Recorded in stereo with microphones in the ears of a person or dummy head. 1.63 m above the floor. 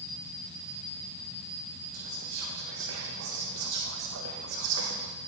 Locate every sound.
1.9 s whispering: 75° right (ahead or behind), 0.6 m